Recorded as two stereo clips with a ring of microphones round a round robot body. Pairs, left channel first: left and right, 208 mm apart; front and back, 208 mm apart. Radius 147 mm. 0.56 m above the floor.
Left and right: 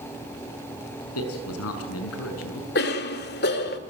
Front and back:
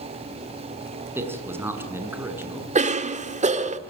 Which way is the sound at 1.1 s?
100° left.